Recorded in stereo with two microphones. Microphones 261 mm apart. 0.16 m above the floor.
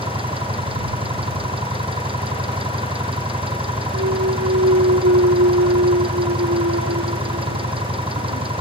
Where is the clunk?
70° right (ahead or behind).